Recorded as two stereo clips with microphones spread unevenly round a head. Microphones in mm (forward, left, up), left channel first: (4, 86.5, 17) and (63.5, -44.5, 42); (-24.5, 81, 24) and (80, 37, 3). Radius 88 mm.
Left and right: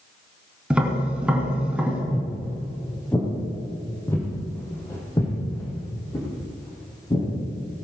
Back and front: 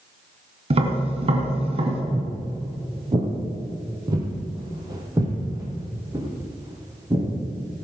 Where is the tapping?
5° left, 2.5 m.